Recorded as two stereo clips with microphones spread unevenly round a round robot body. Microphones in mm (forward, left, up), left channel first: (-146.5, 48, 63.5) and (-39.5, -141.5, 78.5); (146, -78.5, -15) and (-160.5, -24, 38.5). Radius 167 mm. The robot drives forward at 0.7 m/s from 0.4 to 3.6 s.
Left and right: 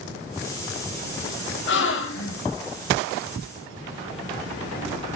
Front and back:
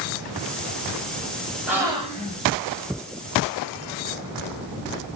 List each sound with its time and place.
1.7 s a gasp: 80° left, 1.1 m; by 2.4 s 105° left, 1.2 m